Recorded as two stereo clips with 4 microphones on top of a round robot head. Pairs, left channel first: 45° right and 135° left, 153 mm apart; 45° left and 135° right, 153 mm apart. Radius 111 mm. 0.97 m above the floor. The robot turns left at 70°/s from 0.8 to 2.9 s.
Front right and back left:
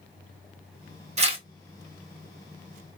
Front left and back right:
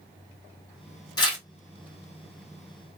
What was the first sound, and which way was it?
Tearing paper, 105° left.